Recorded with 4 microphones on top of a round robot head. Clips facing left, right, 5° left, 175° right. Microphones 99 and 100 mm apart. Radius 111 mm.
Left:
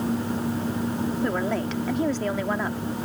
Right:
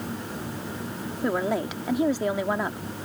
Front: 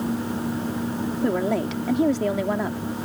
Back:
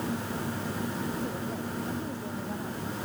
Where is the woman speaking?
15° right.